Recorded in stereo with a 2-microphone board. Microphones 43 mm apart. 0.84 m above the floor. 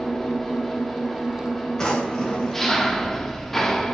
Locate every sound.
0.0 s an engine running: 5° left (ahead or behind), 1.2 m
1.8 s a drawer: 10° left (ahead or behind), 3 m